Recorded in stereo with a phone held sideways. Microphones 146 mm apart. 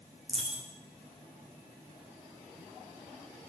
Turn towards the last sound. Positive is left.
turn(degrees=0)  # may be behind; listen again after turning